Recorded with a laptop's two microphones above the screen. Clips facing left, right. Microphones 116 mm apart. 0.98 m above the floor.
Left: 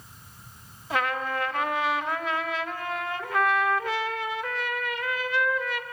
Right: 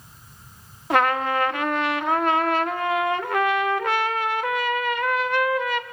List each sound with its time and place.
0.9 s a trumpet: 65° right (ahead or behind), 0.7 m